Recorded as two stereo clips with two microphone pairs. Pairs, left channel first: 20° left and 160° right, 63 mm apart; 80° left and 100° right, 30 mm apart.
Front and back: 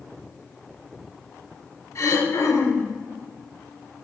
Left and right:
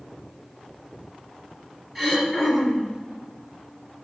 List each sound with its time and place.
1.9 s throat clearing: 5° left, 2.5 m